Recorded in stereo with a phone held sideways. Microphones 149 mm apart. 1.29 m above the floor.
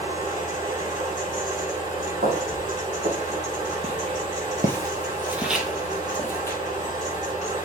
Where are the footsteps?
65° right (ahead or behind), 4 m; by 6.6 s 20° left (ahead or behind), 2.5 m.